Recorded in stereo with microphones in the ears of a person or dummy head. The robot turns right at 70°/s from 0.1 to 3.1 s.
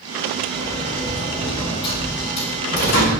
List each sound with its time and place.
0.5 s a sliding door: 65° right, 2 m; by 3.1 s 115° left, 2 m